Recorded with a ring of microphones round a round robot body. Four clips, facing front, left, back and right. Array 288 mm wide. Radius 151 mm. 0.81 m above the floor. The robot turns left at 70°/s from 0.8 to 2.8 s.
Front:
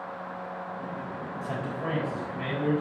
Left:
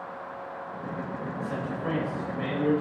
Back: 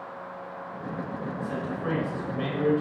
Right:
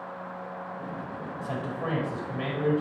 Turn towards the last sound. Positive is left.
turn(degrees=-150)